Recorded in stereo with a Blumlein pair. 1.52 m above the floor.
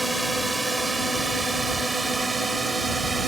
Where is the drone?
5° right; by 3.3 s 10° right.